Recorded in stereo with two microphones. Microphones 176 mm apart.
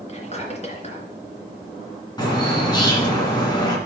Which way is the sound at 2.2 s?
25° left (ahead or behind).